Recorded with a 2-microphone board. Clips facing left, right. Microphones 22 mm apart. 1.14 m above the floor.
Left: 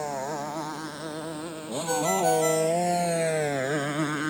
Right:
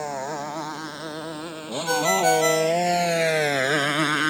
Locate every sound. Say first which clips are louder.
0.0 s a motorcycle: right 2 dB; 20° right (ahead or behind); by 4.3 s 75° right (ahead or behind)
1.9 s a ringtone: right 4 dB; 55° right (ahead or behind)